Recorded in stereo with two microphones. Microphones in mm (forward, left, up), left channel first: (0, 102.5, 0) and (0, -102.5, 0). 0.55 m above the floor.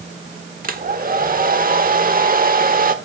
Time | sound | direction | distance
0.6 | a hair dryer | 45° right (ahead or behind) | 1.2 m